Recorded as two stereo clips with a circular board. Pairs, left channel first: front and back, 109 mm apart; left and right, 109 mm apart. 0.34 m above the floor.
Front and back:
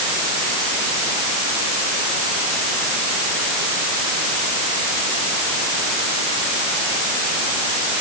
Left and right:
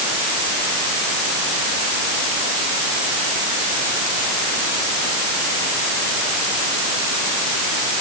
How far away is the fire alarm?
No fire alarm in this recording.